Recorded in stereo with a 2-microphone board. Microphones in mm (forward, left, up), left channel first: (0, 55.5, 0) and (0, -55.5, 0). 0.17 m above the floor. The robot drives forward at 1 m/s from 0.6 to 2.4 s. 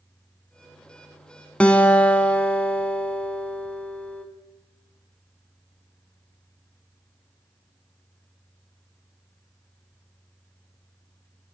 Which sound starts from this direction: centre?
A guitar, at 1.6 s.